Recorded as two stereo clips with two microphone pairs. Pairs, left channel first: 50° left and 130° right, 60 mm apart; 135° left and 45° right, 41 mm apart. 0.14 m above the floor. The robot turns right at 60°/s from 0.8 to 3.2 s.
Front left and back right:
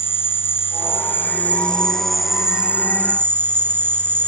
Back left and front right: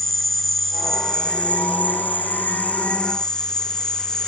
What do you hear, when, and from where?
0.0 s an insect: 55° left, 0.7 m; by 4.3 s 160° right, 0.7 m